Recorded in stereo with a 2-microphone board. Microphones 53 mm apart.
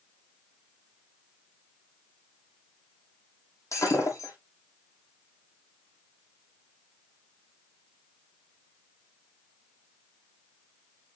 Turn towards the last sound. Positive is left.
turn(degrees=65)  # may be behind; listen again after turning